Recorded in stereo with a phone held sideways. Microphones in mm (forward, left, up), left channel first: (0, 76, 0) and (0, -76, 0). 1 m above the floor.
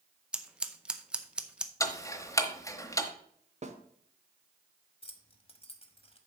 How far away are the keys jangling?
About 1.1 m.